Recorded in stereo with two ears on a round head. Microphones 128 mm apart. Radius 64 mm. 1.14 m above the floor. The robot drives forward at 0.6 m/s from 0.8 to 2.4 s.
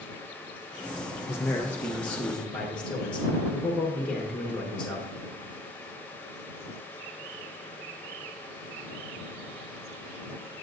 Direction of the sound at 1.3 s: 20° left (ahead or behind).